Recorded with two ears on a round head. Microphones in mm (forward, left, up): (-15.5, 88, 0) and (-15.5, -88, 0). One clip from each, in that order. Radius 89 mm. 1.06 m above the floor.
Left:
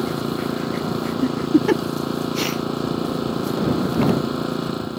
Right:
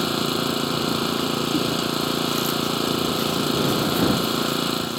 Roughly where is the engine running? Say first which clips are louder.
Right 2 dB; right.